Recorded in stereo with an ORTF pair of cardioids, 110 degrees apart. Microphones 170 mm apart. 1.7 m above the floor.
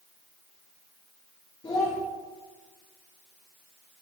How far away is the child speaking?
About 2.5 m.